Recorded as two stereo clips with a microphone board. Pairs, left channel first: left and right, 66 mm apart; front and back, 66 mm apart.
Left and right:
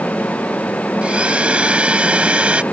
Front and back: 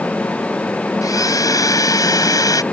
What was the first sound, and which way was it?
A blender, 20° right.